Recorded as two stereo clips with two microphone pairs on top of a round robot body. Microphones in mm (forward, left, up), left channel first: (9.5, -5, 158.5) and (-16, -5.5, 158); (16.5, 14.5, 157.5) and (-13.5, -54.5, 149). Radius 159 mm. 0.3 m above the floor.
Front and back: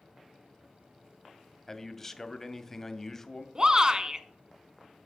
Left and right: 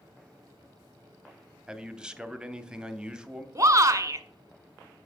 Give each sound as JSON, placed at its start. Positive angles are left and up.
{"t": 1.7, "sound": "a man speaking", "azimuth_deg": -60, "distance_m": 1.0}
{"t": 3.5, "sound": "a shout", "azimuth_deg": -135, "distance_m": 1.2}